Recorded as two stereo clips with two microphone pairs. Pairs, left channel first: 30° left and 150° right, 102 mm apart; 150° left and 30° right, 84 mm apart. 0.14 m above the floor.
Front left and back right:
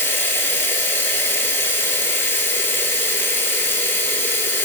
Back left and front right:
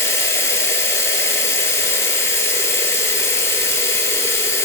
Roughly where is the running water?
Left.